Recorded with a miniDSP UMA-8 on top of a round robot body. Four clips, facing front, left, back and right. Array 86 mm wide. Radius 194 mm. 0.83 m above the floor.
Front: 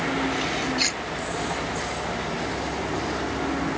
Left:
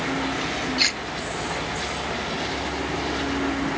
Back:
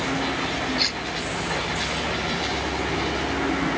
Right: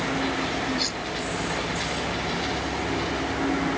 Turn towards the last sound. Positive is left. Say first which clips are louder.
# left 2 dB, even
turn(degrees=80)